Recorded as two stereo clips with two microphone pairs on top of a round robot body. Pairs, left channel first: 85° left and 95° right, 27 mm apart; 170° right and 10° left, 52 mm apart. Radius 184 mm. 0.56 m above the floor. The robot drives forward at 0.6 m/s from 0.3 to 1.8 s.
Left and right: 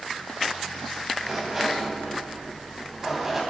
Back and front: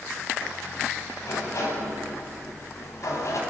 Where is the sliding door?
175° right, 4.5 m.